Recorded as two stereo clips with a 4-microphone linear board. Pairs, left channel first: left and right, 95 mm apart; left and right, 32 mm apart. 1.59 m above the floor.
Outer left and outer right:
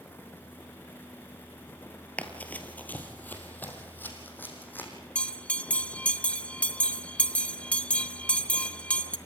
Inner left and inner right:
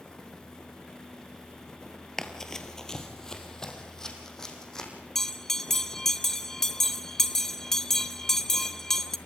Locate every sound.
2.2 s running footsteps: 15° left (ahead or behind), 2 m; by 4.9 s 20° left (ahead or behind), 5 m
5.2 s a bell: 15° left (ahead or behind), 1.0 m